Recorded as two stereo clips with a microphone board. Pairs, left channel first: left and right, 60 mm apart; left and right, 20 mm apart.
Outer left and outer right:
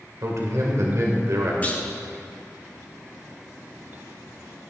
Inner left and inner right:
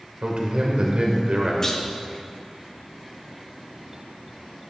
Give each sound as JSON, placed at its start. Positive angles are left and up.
{"t": 0.2, "sound": "a man speaking", "side_deg": -60, "distance_m": 2.0}
{"t": 1.6, "sound": "a clunk", "side_deg": 30, "distance_m": 1.3}